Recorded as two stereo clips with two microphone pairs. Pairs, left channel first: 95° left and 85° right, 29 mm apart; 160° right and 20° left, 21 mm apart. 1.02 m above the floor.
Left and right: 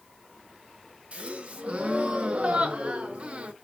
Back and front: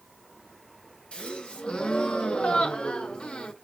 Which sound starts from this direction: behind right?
A gasp, at 1.1 s.